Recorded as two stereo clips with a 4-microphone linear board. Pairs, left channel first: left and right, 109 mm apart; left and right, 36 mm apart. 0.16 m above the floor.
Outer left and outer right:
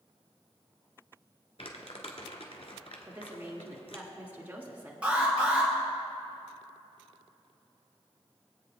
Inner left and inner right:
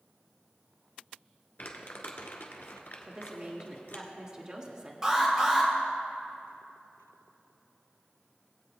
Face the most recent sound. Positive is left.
turn(degrees=-15)  # may be behind; listen again after turning